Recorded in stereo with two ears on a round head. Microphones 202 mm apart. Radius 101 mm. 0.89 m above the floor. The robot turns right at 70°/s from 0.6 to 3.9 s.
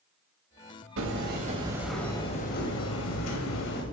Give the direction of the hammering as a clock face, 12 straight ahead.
2 o'clock.